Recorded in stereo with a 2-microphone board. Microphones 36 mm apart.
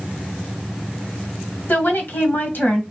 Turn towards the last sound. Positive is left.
turn(degrees=60)  # may be behind; listen again after turning